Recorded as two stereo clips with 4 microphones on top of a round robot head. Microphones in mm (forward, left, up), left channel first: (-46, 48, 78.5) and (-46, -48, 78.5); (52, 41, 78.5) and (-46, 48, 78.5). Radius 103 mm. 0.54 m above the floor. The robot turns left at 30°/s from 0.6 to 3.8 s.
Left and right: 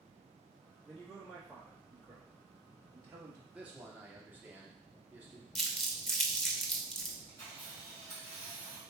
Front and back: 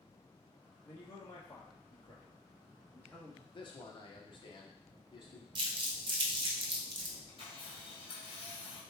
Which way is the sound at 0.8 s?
5° left.